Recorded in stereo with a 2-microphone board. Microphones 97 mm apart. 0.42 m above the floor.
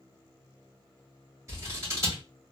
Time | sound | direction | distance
1.5 | scissors | 30° right (ahead or behind) | 2 m